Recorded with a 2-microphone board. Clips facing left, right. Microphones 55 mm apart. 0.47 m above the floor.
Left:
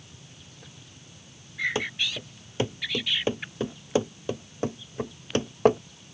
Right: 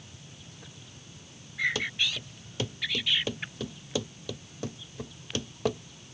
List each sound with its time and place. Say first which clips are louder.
1.8 s running footsteps: left 2 dB; 25° left (ahead or behind); by 5.8 s 40° left (ahead or behind)